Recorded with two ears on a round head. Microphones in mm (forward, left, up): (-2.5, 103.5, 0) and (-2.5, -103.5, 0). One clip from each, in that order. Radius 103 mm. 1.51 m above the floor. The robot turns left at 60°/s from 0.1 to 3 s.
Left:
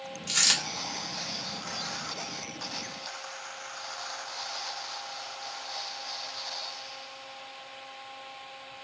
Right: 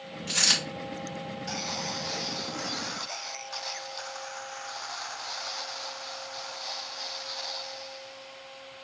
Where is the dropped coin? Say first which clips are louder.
Right 1 dB; 30° left (ahead or behind), 2.0 m; by 0.6 s 40° left (ahead or behind), 2.0 m.